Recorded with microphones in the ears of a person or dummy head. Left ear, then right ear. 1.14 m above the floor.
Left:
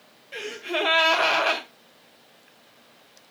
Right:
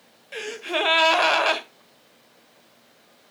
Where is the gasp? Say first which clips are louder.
Right 2 dB; 25° right (ahead or behind), 1.5 m.